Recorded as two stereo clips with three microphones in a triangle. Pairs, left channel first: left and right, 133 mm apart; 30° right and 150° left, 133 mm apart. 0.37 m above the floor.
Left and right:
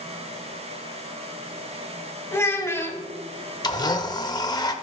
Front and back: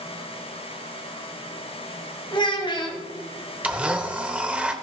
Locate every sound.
2.3 s a child speaking: 20° left, 1.5 m
3.6 s a blender: 75° left, 0.8 m